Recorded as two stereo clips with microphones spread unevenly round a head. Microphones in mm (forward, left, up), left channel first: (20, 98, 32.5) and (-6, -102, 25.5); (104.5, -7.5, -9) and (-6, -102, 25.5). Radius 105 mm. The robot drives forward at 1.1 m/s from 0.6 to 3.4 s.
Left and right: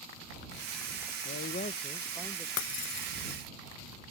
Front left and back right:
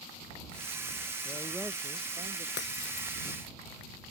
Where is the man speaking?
70° left; by 2.5 s 165° left.